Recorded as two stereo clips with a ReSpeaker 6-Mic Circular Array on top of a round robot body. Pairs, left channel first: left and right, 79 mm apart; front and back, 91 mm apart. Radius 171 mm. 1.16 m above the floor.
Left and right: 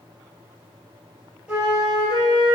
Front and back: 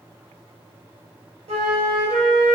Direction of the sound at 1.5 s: 170° right.